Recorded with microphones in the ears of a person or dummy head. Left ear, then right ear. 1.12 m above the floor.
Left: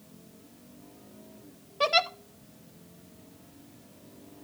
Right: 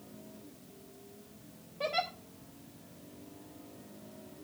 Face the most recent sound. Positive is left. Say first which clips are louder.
# left 9 dB
turn(degrees=60)  # may be behind; listen again after turning